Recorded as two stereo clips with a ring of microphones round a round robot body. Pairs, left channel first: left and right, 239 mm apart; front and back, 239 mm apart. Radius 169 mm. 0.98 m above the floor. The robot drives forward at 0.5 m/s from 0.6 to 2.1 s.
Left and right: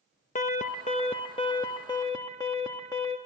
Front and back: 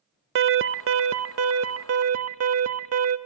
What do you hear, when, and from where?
0.3 s an alarm: 150° left, 0.6 m; by 3.2 s 170° left, 1.2 m